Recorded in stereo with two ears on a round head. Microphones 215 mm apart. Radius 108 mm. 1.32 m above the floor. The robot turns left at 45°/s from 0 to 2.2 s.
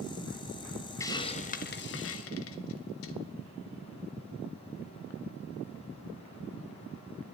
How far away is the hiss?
About 1.0 m.